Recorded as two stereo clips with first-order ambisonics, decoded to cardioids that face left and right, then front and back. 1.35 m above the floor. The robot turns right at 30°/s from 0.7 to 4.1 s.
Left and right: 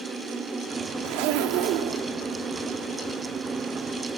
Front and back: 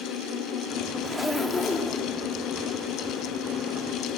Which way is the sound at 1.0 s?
95° right.